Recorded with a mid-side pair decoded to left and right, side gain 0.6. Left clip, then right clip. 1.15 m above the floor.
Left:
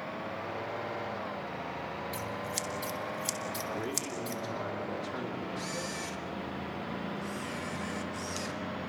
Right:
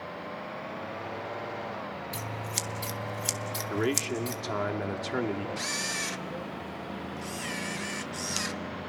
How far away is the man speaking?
About 2.5 m.